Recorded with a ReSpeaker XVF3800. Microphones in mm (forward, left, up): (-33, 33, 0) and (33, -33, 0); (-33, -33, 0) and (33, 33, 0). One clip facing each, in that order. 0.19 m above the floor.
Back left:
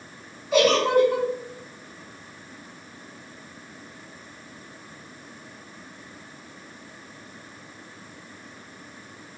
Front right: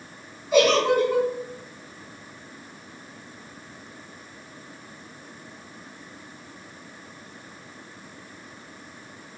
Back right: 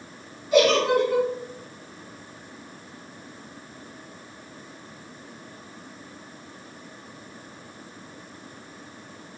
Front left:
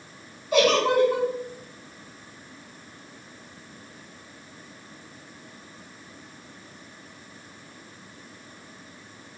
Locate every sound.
0.5 s a giggle: 35° left, 1.7 m